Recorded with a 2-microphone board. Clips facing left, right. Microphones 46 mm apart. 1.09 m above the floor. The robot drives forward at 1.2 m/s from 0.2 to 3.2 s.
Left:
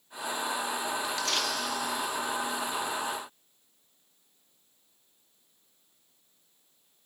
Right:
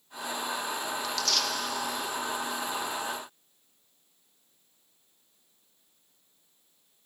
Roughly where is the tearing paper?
Left.